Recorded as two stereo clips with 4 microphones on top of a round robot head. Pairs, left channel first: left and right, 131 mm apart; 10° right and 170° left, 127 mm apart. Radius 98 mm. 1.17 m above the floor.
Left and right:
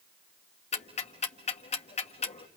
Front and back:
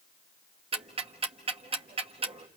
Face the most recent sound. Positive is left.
turn(degrees=125)